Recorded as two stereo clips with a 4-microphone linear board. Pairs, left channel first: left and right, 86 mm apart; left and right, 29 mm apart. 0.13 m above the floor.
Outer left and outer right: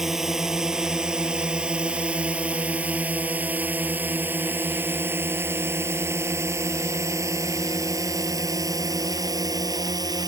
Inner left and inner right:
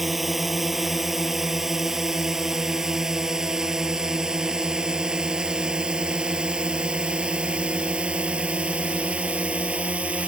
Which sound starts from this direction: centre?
A drone, at 0.0 s.